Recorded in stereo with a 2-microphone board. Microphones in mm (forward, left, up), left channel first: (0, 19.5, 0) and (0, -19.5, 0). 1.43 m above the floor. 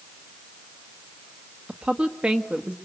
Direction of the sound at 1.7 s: 30° right (ahead or behind).